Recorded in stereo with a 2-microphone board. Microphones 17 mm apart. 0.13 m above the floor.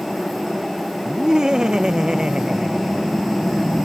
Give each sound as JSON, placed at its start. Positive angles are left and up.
{"t": 1.1, "sound": "laughter", "side_deg": -50}